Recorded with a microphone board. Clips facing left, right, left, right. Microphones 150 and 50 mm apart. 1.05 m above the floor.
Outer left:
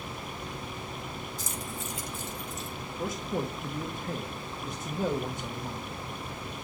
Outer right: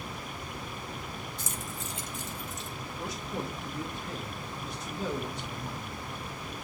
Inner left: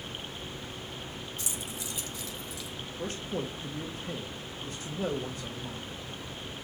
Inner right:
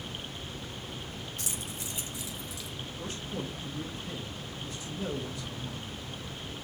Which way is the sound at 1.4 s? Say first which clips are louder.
Outer left 2 dB, inner left 1 dB; 60° right (ahead or behind).